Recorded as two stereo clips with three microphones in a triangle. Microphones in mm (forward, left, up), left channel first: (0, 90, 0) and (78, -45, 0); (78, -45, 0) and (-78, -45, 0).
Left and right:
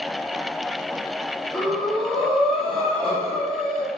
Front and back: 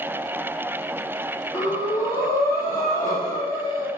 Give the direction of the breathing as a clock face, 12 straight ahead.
11 o'clock.